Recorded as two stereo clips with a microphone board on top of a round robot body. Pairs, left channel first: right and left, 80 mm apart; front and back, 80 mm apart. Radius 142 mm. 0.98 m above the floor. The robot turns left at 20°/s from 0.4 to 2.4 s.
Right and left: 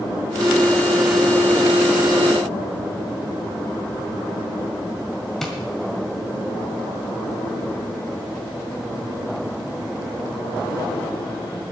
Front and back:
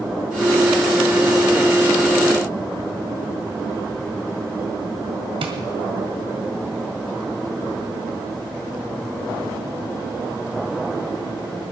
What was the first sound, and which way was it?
Tapping, 175° right.